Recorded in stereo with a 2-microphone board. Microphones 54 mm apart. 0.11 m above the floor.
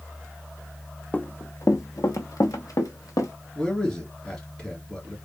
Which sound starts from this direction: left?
Running footsteps, at 1.1 s.